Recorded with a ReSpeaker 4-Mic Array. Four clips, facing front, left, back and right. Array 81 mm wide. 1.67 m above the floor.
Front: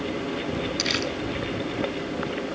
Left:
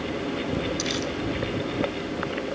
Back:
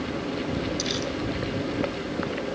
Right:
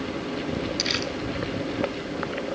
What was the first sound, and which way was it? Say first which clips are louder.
Crumpling: left 1 dB, front 1 dB; 30° right.